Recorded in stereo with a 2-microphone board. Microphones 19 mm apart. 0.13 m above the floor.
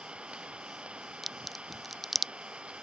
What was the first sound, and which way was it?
An engine running, 75° right (ahead or behind).